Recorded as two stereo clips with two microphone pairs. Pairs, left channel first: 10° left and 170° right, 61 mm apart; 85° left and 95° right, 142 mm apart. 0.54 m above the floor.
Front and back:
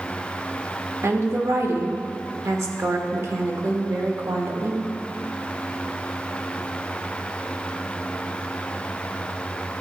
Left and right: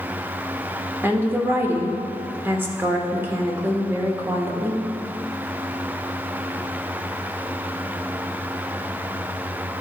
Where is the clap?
I don't hear a clap.